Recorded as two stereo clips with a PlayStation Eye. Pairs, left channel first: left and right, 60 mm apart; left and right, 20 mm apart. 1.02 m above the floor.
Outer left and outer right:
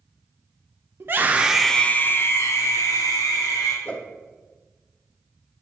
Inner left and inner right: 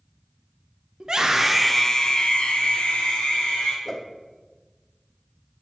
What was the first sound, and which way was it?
A scream, 40° right (ahead or behind).